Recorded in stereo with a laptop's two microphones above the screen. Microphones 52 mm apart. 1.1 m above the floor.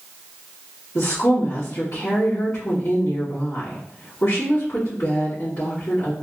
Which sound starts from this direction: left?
A woman speaking, at 0.9 s.